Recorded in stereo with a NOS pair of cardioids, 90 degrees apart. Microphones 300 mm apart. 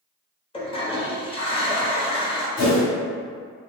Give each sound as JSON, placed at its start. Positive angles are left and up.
{"t": 0.5, "sound": "a toilet flushing", "azimuth_deg": 20, "distance_m": 0.7}
{"t": 2.6, "sound": "a whoosh", "azimuth_deg": 65, "distance_m": 1.1}